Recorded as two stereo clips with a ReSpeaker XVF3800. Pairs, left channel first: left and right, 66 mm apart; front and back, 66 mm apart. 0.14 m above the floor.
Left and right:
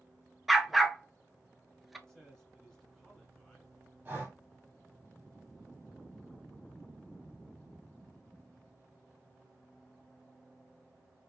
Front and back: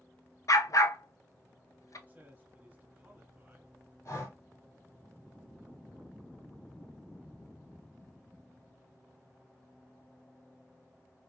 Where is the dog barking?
Straight ahead, 0.6 m.